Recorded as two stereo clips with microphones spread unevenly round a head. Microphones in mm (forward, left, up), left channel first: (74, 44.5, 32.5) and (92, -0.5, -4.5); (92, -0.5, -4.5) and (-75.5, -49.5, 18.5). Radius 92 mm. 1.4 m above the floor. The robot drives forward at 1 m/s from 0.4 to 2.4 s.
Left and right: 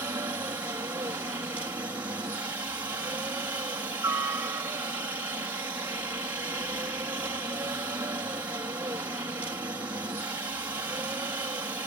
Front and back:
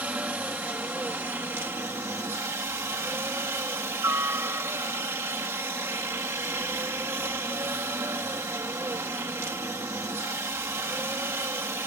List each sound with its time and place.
0.0 s a helicopter: 80° right; by 11.9 s 85° right